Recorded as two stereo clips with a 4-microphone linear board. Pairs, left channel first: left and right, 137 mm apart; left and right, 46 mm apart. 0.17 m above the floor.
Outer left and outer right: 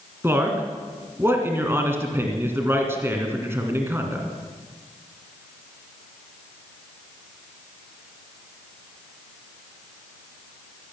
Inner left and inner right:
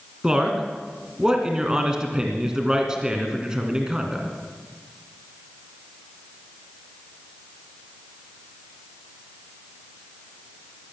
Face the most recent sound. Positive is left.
turn(degrees=-15)  # may be behind; listen again after turning